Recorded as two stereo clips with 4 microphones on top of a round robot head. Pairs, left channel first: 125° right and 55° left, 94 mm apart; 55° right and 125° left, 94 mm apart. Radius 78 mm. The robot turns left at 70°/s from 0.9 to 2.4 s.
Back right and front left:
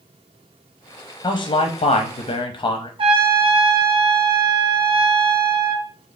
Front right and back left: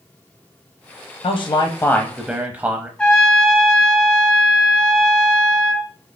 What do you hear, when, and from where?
1.2 s a man speaking: 85° right, 0.7 m; by 2.9 s 165° right, 0.7 m
3.0 s a trumpet: 25° left, 1.3 m